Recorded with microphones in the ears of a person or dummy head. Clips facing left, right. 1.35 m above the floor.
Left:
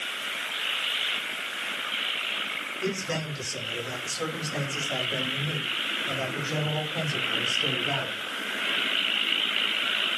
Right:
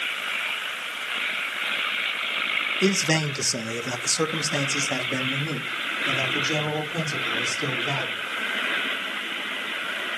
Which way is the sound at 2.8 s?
65° right (ahead or behind).